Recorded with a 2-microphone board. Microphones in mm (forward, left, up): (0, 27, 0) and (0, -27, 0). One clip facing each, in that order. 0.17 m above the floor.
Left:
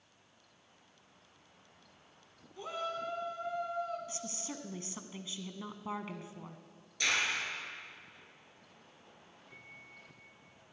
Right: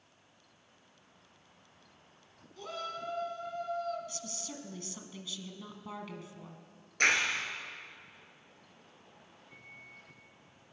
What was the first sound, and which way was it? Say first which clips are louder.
A shout: left 2 dB; 20° left (ahead or behind).